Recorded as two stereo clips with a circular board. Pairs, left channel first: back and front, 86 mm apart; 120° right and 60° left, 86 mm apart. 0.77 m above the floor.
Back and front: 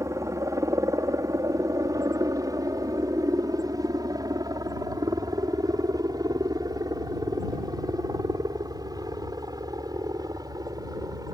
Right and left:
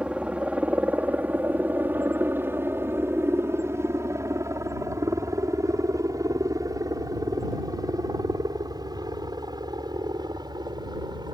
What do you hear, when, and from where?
0.0 s a helicopter: 10° right; by 11.3 s 35° left